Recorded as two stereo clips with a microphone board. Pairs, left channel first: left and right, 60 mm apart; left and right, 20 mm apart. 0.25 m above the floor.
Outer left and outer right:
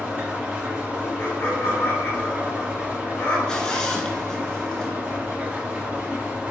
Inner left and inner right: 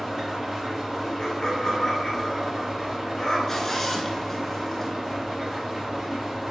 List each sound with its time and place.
0.0 s an engine running: 25° right (ahead or behind), 0.9 m
1.2 s laughter: 35° left (ahead or behind), 1.1 m
3.5 s a zipper: 15° left (ahead or behind), 0.6 m